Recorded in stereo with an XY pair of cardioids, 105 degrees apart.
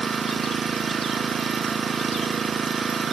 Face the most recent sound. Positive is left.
turn(degrees=-35)